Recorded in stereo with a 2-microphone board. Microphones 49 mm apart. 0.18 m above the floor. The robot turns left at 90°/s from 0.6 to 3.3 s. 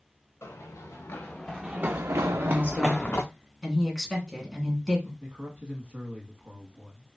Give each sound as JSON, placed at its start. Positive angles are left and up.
{"t": 0.4, "sound": "running footsteps", "side_deg": 65, "distance_m": 1.2}
{"t": 2.2, "sound": "a woman speaking", "azimuth_deg": 100, "distance_m": 1.3}
{"t": 5.2, "sound": "a man speaking", "side_deg": -25, "distance_m": 1.1}